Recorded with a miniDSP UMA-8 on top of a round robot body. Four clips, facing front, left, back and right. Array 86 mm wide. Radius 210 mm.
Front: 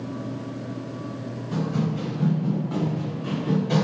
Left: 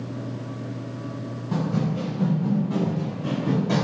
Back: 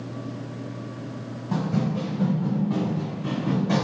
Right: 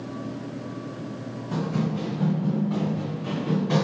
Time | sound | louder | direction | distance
1.5 | running footsteps | left 1 dB, back 1 dB | 155° left | 2 m